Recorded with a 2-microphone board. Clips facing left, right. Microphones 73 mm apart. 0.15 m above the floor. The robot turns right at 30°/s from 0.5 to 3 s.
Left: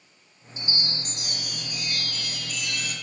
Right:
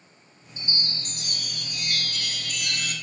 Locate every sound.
0.6 s a chime: 140° right, 0.6 m; by 2.9 s 70° right, 0.6 m